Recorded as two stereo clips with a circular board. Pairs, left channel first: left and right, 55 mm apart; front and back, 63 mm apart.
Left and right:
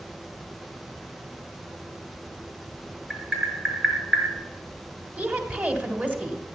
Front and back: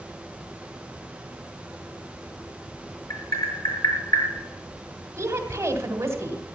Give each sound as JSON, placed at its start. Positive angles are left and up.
{"t": 3.1, "sound": "tapping", "azimuth_deg": -10, "distance_m": 6.0}
{"t": 5.2, "sound": "a woman speaking", "azimuth_deg": -145, "distance_m": 2.5}